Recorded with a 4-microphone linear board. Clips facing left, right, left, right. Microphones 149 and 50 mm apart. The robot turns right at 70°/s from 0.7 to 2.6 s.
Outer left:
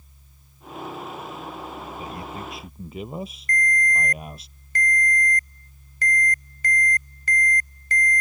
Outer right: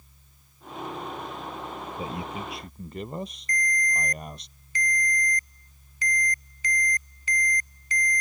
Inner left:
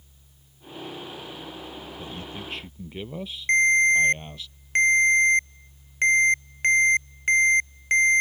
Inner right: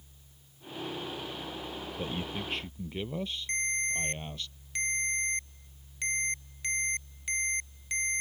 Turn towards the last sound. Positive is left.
turn(degrees=60)  # may be behind; listen again after turning